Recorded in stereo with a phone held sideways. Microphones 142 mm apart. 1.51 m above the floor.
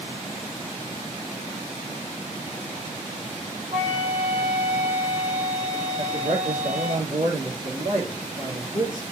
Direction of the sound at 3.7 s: 55° right (ahead or behind).